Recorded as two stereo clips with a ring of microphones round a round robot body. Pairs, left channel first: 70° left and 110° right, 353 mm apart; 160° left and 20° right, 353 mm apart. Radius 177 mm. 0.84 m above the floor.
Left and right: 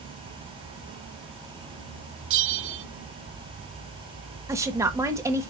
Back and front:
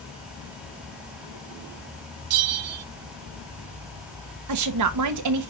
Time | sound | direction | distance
2.3 | a bell | 60° right | 0.5 m
4.5 | a woman speaking | 35° right | 1.1 m